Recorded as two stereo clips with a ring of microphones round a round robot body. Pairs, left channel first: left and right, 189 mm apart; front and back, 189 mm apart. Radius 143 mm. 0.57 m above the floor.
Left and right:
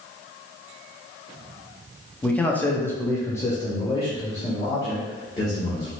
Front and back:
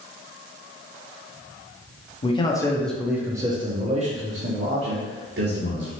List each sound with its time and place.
2.2 s a man speaking: 10° left, 0.9 m; by 5.9 s 165° left, 1.8 m